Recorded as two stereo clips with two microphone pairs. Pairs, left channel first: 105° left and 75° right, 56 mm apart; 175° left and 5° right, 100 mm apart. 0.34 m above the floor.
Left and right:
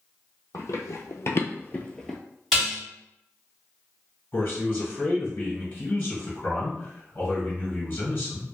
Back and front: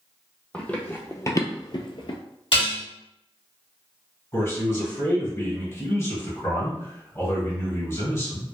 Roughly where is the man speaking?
Behind left.